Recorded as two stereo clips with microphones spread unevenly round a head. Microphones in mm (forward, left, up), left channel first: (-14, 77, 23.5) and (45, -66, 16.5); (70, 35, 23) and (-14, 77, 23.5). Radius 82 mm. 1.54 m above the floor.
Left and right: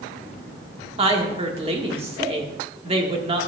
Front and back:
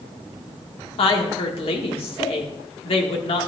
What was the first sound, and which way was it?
A woman speaking, 15° right.